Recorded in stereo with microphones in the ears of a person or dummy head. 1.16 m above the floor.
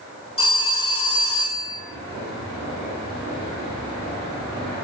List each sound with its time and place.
0.4 s a phone ringing: 30° left (ahead or behind), 4 m